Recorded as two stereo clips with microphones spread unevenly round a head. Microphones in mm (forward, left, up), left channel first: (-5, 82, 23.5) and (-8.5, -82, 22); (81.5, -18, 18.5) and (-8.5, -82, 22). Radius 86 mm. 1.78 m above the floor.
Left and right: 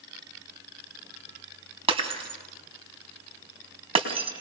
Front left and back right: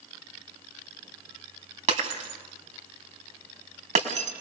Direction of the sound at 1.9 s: 150° right.